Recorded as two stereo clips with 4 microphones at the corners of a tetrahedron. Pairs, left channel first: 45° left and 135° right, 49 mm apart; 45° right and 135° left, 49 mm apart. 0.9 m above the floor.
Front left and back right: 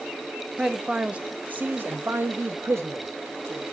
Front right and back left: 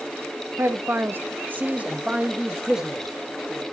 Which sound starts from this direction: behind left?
A man speaking, at 0.6 s.